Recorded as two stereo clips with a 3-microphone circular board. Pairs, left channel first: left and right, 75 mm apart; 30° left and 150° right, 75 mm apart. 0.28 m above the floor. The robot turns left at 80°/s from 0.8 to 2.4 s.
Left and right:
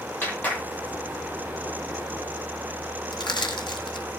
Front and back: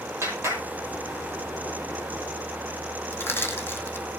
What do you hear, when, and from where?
0.2 s a clap: 160° left, 8.5 m
3.1 s crushing: 90° left, 2.5 m